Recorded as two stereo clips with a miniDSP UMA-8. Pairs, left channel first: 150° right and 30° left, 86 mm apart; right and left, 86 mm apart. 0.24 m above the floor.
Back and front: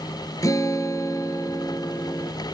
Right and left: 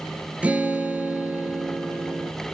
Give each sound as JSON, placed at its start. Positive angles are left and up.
{"t": 0.4, "sound": "a guitar", "azimuth_deg": 165, "distance_m": 2.5}